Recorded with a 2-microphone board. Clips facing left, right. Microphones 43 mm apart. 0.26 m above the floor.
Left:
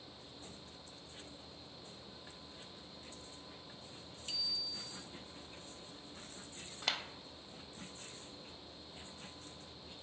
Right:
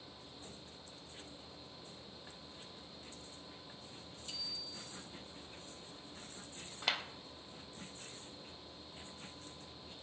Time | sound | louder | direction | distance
4.3 | a bicycle bell | left 5 dB | 60° left (ahead or behind) | 2.5 m
6.8 | a clap | right 2 dB | 5° right (ahead or behind) | 0.8 m